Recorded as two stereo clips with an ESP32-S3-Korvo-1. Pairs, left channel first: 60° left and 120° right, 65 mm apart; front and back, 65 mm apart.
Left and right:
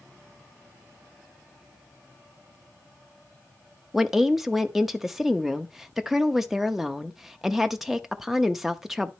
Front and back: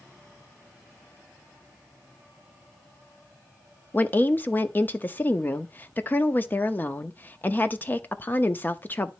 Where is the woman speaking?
40° right, 0.7 m.